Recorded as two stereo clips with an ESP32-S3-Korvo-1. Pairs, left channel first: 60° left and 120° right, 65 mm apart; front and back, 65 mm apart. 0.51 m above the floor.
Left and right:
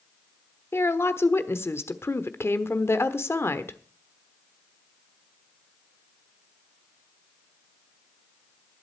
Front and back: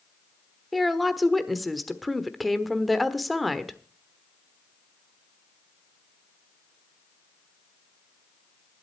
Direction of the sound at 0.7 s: 90° left.